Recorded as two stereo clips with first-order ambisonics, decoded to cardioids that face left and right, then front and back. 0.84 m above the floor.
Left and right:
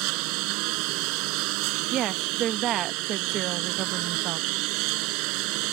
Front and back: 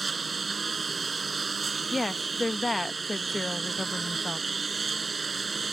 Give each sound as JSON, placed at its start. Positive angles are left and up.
{"t": 0.0, "sound": "a lawn mower", "azimuth_deg": -105}
{"t": 1.9, "sound": "a woman speaking", "azimuth_deg": -80}